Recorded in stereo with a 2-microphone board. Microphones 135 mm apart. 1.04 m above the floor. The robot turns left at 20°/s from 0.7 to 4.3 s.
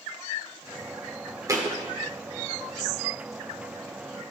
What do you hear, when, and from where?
1.5 s a thud: 25° right (ahead or behind), 1.1 m; by 1.8 s 30° right (ahead or behind), 1.1 m